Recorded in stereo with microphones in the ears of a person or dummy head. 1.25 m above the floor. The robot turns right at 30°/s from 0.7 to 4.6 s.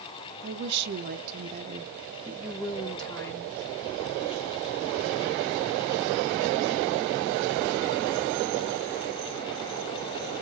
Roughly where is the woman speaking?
Ahead right.